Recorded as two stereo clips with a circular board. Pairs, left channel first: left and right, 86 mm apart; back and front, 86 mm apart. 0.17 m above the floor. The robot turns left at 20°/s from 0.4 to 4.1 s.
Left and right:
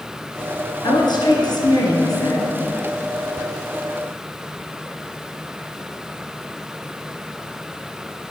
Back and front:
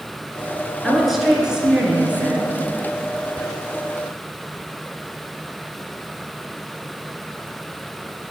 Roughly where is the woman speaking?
Left.